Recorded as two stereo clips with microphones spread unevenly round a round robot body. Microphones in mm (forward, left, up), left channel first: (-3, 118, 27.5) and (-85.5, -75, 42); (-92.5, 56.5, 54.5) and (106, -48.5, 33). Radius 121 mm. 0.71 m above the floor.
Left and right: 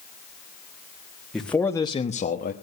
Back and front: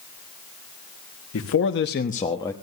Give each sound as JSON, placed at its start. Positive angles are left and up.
{"t": 1.3, "sound": "a man speaking", "azimuth_deg": 155, "distance_m": 1.5}